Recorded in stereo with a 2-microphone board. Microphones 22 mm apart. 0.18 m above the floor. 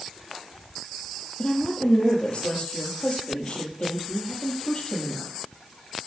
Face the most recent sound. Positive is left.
turn(degrees=45)  # may be behind; listen again after turning